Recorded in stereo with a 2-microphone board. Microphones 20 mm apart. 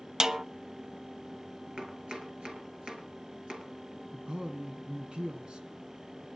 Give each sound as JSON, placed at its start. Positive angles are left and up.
{"t": 0.2, "sound": "a snare drum", "side_deg": -30, "distance_m": 0.6}
{"t": 1.8, "sound": "chopping", "side_deg": -50, "distance_m": 4.5}
{"t": 4.1, "sound": "a man speaking", "side_deg": -50, "distance_m": 2.0}